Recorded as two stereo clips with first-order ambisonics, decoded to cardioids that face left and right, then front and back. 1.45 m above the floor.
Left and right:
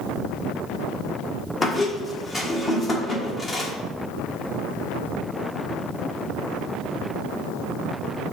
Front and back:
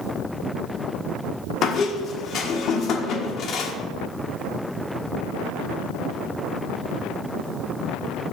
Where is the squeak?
25° left, 1.2 m.